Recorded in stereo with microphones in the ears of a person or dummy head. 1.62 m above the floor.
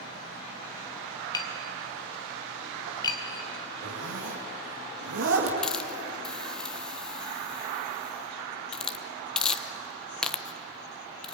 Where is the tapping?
20° left (ahead or behind), 1.7 m.